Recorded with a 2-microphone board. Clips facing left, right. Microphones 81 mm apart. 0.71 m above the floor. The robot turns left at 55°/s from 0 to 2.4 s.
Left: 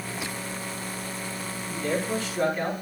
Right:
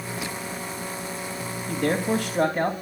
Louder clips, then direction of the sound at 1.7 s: Right 4 dB; 90° right.